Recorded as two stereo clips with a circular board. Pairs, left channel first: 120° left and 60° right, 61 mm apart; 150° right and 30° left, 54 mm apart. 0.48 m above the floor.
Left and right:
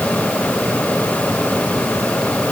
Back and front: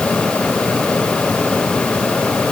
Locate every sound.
Only background noise.